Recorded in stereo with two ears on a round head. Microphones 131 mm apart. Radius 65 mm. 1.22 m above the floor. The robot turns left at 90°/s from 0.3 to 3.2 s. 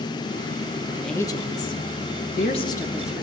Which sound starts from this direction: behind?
A woman speaking, at 0.9 s.